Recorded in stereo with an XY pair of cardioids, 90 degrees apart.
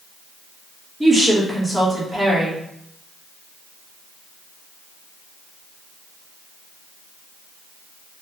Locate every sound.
1.0 s a woman speaking: 15° right, 1.3 m